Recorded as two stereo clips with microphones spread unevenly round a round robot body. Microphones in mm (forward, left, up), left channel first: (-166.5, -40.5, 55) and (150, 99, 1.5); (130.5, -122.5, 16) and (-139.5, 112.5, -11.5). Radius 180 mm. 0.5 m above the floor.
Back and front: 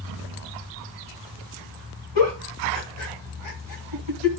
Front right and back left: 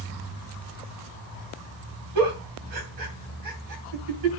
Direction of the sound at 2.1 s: 170° left.